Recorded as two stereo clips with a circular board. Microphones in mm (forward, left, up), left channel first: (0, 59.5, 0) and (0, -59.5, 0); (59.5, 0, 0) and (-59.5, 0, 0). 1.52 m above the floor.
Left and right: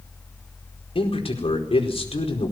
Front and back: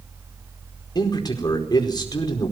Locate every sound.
0.9 s a man speaking: 55° left, 4.5 m